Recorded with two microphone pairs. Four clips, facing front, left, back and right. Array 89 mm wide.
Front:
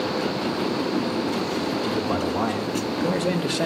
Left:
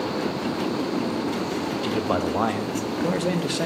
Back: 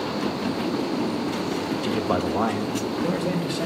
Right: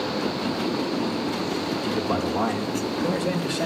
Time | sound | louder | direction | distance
1.8 | a man speaking | left 2 dB, even | 130° left | 1.2 m